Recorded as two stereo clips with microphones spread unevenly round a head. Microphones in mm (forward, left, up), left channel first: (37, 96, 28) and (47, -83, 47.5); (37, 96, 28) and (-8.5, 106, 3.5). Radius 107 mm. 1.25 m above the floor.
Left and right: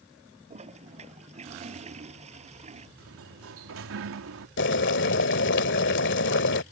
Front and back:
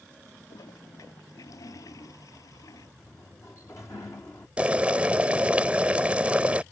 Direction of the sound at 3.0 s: 85° right.